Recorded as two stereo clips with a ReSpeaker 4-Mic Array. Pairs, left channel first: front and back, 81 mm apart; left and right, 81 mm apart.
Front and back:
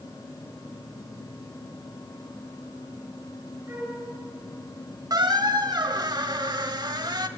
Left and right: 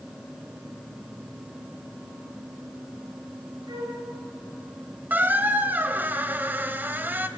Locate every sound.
3.7 s a flute: 120° right, 4.5 m
5.1 s a squeak: 155° right, 0.8 m